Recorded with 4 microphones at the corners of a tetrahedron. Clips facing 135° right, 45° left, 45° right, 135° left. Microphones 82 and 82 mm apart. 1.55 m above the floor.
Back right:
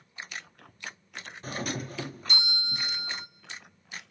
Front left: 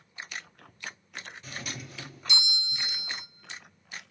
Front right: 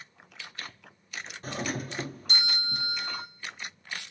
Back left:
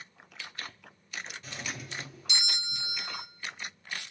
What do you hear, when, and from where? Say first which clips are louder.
1.4 s a doorbell: back right 10 dB, front right 7 dB; 90° right, 1.0 m